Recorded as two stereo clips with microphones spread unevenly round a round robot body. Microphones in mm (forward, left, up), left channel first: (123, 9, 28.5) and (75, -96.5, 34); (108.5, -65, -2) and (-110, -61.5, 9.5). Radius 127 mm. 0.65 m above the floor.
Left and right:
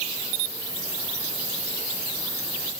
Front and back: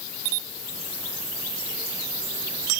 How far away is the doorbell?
I don't hear a doorbell.